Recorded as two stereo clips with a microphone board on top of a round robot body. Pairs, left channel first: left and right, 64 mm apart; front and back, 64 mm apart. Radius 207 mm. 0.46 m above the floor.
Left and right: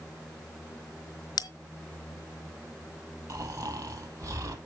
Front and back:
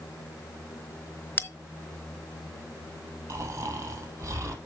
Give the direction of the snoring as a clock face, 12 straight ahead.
4 o'clock.